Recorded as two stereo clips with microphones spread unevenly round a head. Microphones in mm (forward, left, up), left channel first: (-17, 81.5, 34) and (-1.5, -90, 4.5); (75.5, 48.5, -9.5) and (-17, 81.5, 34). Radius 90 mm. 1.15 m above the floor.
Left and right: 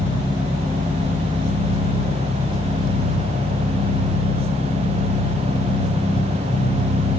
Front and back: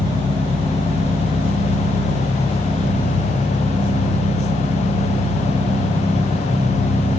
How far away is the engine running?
About 3.5 m.